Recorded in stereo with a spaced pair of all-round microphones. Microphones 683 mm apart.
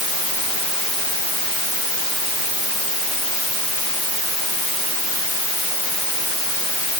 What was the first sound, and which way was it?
Only background noise.